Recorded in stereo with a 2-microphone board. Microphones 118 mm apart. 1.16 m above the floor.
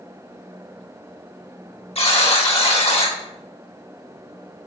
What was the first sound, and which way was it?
A buzzer, 55° left (ahead or behind).